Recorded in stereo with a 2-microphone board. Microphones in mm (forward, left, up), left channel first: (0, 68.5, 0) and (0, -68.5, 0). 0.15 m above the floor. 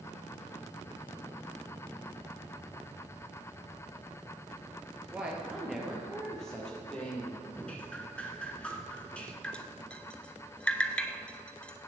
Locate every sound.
5.1 s a woman speaking: 10° right (ahead or behind), 2.5 m; by 7.5 s 10° left (ahead or behind), 4.5 m
7.5 s dripping: 10° left (ahead or behind), 1.4 m
9.4 s dripping: 10° left (ahead or behind), 0.8 m